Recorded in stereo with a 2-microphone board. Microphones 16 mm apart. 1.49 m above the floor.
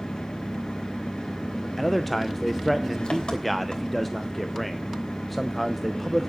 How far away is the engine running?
About 3 m.